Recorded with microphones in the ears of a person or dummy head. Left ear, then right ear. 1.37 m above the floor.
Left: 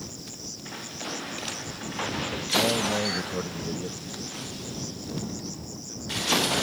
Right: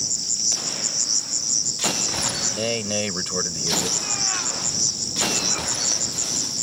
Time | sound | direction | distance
0.0 | an insect | 75° right (ahead or behind) | ?
2.5 | a man speaking | 60° right (ahead or behind) | ?